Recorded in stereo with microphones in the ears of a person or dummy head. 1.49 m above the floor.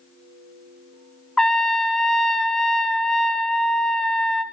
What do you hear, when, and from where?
1.4 s a trumpet: 5° left (ahead or behind), 0.5 m